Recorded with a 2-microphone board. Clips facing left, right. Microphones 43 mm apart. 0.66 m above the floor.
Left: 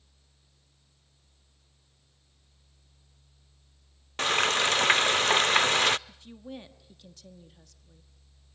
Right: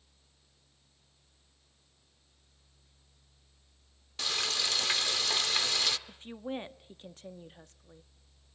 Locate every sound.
4.2 s frying: 50° left (ahead or behind), 0.5 m
6.1 s a woman speaking: 35° right (ahead or behind), 1.3 m